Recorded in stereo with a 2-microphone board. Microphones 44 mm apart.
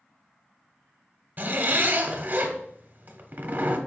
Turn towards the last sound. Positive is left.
turn(degrees=-50)  # may be behind; listen again after turning